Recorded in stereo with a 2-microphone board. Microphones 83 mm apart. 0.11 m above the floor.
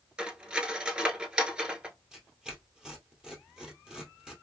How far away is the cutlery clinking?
About 0.8 m.